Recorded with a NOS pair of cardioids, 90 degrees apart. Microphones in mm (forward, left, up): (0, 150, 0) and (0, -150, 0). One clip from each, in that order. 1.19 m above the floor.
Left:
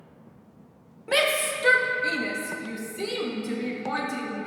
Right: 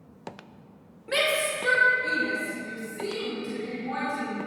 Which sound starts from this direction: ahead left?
A shout, at 1.1 s.